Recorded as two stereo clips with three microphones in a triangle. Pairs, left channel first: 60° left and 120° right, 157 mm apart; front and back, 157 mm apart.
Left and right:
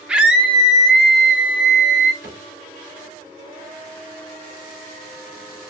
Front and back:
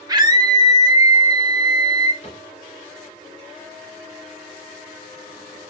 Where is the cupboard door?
55° left, 3 m.